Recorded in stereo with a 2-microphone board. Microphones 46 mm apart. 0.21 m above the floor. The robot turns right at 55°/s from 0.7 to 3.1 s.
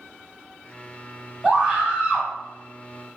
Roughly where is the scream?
Centre.